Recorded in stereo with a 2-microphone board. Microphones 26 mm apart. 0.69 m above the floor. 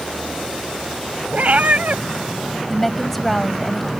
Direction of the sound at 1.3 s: 70° right (ahead or behind).